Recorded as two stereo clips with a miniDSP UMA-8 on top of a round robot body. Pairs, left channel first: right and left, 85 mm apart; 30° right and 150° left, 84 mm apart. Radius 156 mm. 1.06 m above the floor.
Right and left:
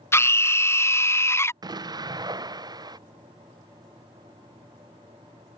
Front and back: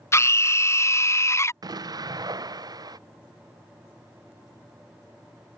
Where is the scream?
55° right.